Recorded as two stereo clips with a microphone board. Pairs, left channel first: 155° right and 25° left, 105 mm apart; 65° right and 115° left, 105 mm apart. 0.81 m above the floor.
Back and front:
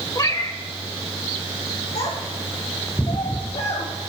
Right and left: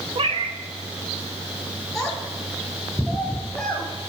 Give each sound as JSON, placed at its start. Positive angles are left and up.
{"t": 0.1, "sound": "a cat meowing", "azimuth_deg": 145, "distance_m": 0.7}
{"t": 1.9, "sound": "a child speaking", "azimuth_deg": -155, "distance_m": 1.0}